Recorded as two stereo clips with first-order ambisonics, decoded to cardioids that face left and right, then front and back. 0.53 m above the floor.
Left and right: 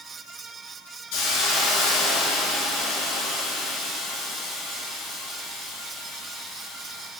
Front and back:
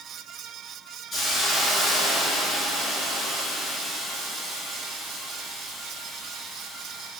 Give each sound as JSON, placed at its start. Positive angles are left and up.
{"t": 1.1, "sound": "a hiss", "azimuth_deg": 80, "distance_m": 3.5}